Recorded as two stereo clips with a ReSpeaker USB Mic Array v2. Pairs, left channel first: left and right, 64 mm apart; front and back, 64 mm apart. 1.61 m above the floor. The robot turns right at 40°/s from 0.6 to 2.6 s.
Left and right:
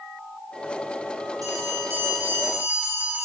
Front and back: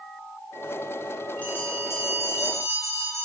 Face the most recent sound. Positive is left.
turn(degrees=-15)